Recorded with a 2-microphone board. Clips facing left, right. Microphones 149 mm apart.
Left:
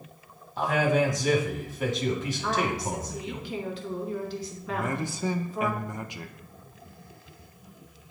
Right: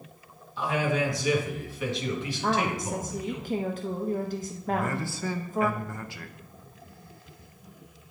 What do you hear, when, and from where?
0.6 s a man speaking: 45° left (ahead or behind), 1.6 m
2.4 s a woman speaking: 45° right (ahead or behind), 0.7 m
4.7 s a man speaking: 20° left (ahead or behind), 0.5 m